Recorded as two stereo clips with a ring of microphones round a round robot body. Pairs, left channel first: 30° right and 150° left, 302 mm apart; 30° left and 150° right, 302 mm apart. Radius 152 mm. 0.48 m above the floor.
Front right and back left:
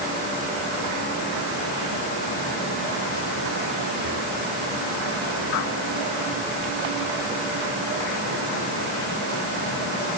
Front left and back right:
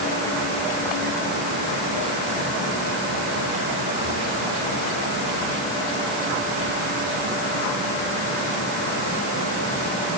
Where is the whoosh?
I don't hear a whoosh.